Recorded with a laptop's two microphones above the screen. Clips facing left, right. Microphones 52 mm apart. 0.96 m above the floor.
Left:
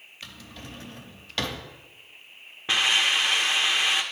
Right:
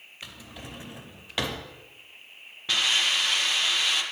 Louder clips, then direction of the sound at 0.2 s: Even; 15° right (ahead or behind).